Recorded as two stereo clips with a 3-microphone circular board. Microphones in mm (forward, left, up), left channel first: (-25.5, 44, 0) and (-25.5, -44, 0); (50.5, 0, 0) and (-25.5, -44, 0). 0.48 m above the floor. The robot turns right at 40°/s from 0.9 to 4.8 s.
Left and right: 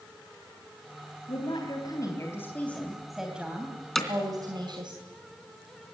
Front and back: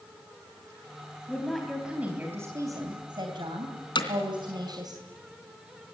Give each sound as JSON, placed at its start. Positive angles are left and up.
{"t": 1.3, "sound": "a woman speaking", "azimuth_deg": 105, "distance_m": 3.0}
{"t": 4.0, "sound": "hammering", "azimuth_deg": 0, "distance_m": 3.0}